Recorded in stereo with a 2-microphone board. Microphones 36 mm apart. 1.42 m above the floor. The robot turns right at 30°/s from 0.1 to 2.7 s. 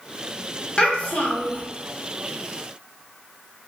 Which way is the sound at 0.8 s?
25° left (ahead or behind).